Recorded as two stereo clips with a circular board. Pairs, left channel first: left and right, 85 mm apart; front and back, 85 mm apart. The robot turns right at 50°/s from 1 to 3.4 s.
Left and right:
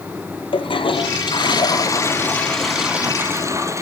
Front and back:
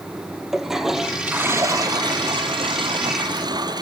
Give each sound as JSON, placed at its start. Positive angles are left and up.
{"t": 0.5, "sound": "a toilet flushing", "azimuth_deg": 95, "distance_m": 1.2}